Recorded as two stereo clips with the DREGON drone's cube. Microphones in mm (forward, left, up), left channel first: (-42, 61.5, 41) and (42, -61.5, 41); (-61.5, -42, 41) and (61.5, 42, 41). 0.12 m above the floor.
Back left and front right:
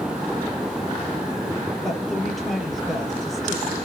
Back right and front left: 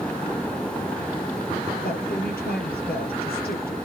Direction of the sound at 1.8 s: 145° right.